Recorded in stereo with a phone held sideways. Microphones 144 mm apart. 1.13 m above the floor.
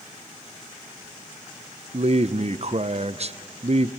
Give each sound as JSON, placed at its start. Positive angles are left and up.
{"t": 1.9, "sound": "a man speaking", "side_deg": -50, "distance_m": 0.6}